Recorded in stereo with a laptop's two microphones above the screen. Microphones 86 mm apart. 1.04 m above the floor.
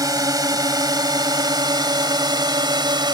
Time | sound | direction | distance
0.0 | a drone | 45° right (ahead or behind) | ?